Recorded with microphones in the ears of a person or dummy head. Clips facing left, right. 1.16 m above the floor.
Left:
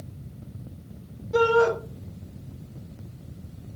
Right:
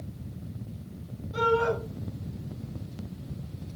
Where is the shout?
75° left (ahead or behind), 1.8 m.